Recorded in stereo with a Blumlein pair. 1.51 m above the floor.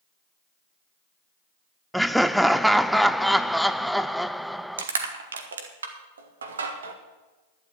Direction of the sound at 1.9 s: Straight ahead.